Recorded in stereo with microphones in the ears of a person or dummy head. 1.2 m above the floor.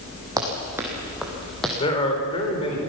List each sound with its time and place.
0.4 s running footsteps: 15° right (ahead or behind), 3.5 m; by 1.7 s 5° left (ahead or behind), 3 m
1.8 s a man speaking: 30° left (ahead or behind), 4.5 m